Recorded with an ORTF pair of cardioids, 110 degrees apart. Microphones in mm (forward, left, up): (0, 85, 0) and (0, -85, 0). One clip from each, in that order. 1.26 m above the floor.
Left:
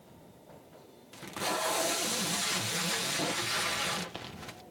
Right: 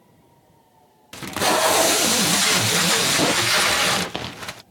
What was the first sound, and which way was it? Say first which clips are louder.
Tape being pulled: right 13 dB; 60° right.